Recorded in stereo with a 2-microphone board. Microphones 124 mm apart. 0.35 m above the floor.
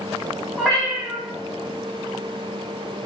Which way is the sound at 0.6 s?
Centre (ahead or behind).